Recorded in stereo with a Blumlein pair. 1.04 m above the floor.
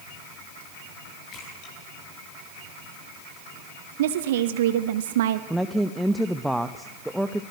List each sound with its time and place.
1.3 s a splash: 40° left, 9.5 m
4.0 s a woman speaking: 55° right, 1.0 m
5.5 s a woman speaking: straight ahead, 0.9 m